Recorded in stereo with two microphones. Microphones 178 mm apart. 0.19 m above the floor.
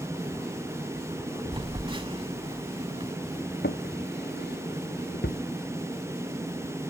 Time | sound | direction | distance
1.5 | a phone buzzing | 30° right (ahead or behind) | ?
3.6 | a drawer | 80° left | ?